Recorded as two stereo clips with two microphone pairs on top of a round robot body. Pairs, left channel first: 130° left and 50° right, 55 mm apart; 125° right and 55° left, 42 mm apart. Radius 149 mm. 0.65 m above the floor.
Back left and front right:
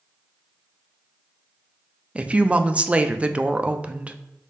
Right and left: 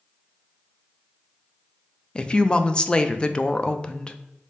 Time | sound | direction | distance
2.1 | a woman speaking | 85° right | 0.6 m